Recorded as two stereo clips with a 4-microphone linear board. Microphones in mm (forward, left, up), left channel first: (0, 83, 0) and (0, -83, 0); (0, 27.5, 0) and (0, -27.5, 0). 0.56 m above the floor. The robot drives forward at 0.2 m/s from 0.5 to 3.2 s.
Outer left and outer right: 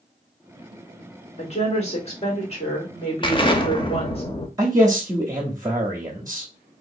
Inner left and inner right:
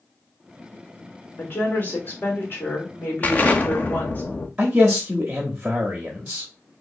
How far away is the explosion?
About 0.6 m.